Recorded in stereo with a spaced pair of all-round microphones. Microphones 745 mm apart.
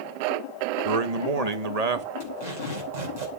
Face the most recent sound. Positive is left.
turn(degrees=-65)  # may be behind; listen again after turning